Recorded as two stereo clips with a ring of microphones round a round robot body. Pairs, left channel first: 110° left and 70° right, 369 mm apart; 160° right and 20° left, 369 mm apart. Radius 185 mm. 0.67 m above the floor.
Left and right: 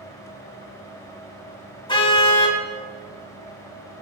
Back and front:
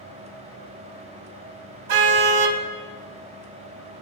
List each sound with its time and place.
1.9 s a car horn: 35° left, 2.5 m